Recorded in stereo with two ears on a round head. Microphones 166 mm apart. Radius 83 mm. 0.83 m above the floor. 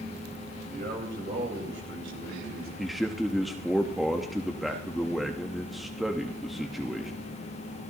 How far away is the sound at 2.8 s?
About 0.9 m.